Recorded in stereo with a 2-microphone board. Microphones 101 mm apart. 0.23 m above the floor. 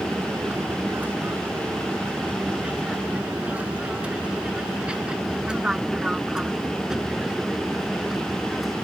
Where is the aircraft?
20° right (ahead or behind); by 8.8 s centre (ahead or behind).